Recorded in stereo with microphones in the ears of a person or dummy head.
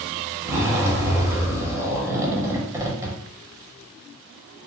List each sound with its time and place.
0.5 s a zipper: 15° right (ahead or behind), 0.8 m